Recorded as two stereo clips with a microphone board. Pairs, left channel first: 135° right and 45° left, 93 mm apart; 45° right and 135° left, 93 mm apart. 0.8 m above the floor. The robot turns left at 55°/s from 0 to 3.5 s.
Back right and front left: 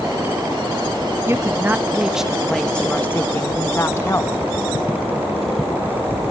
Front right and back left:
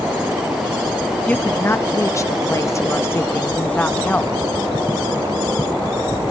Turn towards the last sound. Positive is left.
turn(degrees=-105)